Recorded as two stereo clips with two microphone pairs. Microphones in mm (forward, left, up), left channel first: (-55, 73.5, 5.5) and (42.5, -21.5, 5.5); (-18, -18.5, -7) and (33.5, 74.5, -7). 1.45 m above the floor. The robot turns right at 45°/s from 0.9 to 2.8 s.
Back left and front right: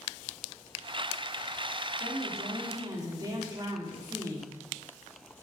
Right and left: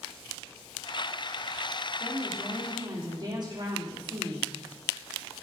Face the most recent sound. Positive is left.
turn(degrees=15)